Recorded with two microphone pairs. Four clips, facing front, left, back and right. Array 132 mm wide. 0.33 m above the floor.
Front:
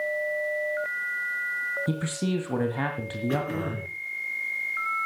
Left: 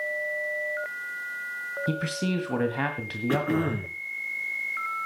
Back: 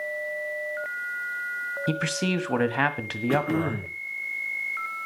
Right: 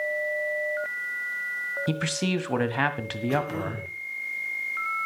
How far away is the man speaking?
About 1.7 m.